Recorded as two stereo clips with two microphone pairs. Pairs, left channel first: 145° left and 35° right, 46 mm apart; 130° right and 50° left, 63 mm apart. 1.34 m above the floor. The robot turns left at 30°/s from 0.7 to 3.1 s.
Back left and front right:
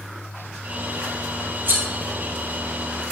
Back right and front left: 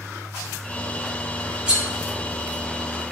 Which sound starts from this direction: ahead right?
Cutlery clinking, at 1.7 s.